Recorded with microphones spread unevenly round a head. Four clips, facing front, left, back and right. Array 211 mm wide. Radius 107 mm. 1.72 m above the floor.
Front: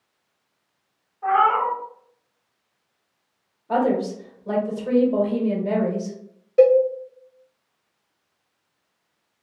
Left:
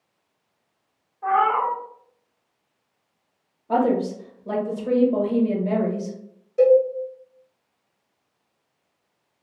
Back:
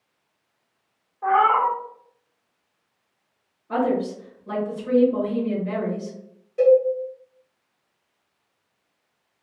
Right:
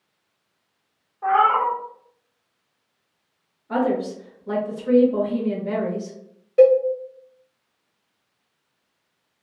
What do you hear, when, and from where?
1.2 s a cat meowing: 140° right, 1.4 m
3.7 s a woman speaking: 55° left, 1.2 m
6.6 s a cowbell: 40° right, 0.7 m